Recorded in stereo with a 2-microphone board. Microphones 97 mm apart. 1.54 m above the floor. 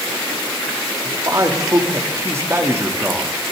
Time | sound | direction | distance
1.1 | a man speaking | 40° right (ahead or behind) | 3 m